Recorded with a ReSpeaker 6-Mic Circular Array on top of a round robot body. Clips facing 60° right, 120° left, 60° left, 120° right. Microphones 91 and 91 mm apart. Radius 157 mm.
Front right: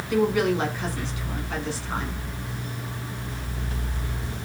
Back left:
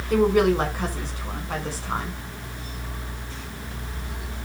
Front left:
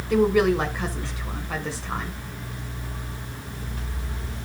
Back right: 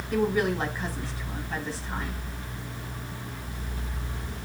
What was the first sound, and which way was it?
A woman speaking, 75° left.